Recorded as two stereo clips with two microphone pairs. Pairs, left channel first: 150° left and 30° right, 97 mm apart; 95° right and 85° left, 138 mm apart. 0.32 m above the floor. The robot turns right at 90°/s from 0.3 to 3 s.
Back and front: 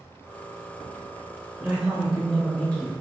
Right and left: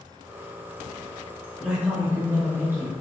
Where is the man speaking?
10° left, 0.8 m; by 2.9 s 130° left, 0.8 m.